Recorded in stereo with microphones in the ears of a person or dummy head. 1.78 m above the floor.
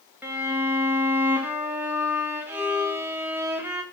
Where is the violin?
10° right (ahead or behind), 1.2 m.